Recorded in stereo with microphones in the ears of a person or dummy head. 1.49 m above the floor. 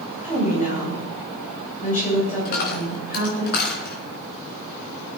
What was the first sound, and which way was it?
A woman speaking, 40° left (ahead or behind).